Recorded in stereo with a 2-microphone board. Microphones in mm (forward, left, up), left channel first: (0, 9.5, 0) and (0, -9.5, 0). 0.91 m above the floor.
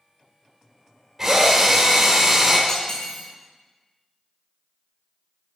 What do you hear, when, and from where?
1.2 s a drill: 15° right (ahead or behind), 3 m
2.7 s cutlery clinking: 45° left (ahead or behind), 2.5 m